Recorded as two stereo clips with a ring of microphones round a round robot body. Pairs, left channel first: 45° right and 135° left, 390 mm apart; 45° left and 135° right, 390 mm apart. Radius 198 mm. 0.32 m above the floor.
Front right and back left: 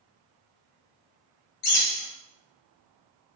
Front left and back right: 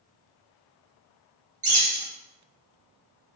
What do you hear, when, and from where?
1.6 s a bird: 65° right, 1.8 m